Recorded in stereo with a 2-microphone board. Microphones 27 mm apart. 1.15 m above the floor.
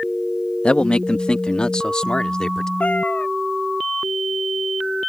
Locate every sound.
0.6 s a man speaking: 45° left (ahead or behind); by 2.7 s 30° left (ahead or behind)
2.8 s a cat meowing: 55° left (ahead or behind)